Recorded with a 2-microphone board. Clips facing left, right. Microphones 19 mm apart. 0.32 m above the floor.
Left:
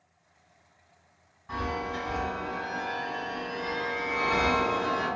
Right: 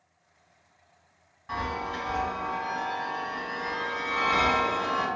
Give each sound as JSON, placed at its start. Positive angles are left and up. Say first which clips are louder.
{"t": 1.5, "sound": "a chime", "louder": "right 1 dB", "side_deg": -25, "distance_m": 1.5}